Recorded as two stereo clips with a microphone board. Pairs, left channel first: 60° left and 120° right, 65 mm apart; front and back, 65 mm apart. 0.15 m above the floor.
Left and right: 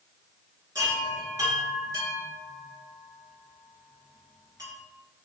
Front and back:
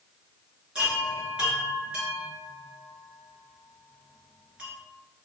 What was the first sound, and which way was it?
A chime, 105° right.